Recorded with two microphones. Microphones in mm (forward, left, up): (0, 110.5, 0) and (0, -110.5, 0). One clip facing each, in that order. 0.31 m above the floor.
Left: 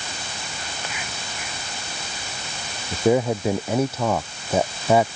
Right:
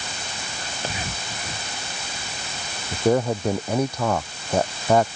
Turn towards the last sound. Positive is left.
turn(degrees=5)  # may be behind; listen again after turning